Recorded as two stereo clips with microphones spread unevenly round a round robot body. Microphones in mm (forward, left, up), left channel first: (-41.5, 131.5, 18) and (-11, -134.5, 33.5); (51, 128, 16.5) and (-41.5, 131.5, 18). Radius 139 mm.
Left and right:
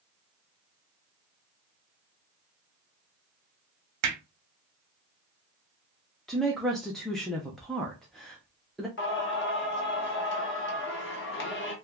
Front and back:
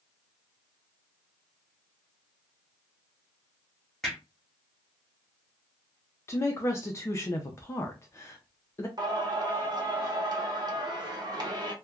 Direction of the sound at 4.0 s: 90° right.